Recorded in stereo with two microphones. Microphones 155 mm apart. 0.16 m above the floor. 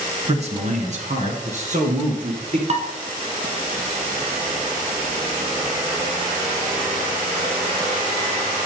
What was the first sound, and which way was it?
A man speaking, 40° right (ahead or behind).